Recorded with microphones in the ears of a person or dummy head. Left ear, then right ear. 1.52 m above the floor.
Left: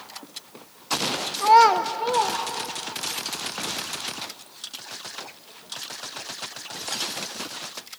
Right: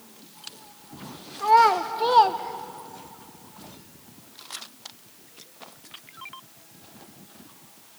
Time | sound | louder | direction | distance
1.4 | a child speaking | left 2 dB | 15° left (ahead or behind) | 1.1 m